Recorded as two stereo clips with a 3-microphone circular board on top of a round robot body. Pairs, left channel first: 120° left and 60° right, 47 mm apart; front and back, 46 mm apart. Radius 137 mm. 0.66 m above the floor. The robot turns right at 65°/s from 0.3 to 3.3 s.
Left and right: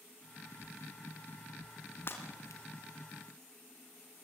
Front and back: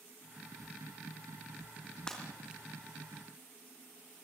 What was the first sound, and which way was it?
Breaking glass, 75° left.